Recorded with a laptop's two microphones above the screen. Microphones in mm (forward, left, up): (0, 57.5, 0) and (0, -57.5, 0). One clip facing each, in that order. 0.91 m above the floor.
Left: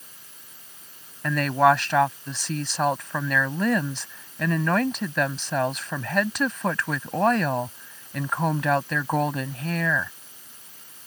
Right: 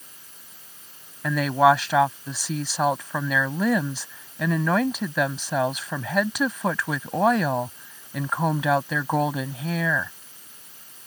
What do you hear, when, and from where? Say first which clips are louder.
1.2 s a woman speaking: right 1 dB; 5° right (ahead or behind)